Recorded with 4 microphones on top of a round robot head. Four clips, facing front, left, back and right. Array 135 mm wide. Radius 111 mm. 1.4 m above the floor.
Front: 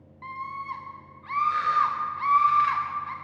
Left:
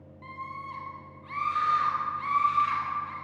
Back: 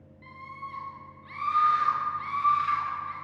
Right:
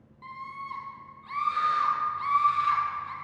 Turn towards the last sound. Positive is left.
turn(degrees=-10)